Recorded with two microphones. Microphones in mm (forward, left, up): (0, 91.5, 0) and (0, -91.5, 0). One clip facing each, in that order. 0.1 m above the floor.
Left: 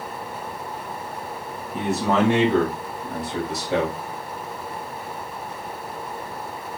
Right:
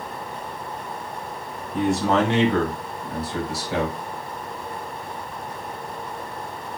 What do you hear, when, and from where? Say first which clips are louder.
1.7 s a man speaking: right 1 dB; centre (ahead or behind), 1.4 m; by 4.0 s 25° left (ahead or behind), 2.0 m